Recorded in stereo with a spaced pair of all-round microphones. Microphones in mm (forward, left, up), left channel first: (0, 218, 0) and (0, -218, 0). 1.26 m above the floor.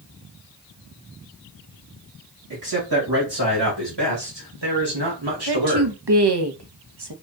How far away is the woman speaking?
About 0.9 m.